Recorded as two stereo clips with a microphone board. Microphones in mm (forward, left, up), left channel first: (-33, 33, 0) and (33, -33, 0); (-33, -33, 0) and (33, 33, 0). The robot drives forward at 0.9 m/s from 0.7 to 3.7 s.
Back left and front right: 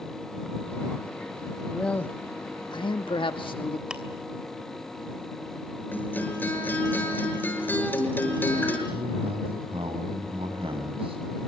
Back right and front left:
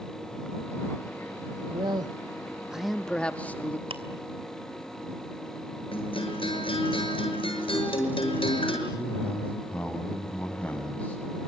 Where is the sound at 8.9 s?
60° right, 6.5 m.